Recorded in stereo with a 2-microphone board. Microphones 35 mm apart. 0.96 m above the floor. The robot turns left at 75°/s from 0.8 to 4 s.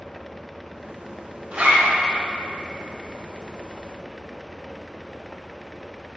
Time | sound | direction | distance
1.5 | a zipper | 40° right | 1.9 m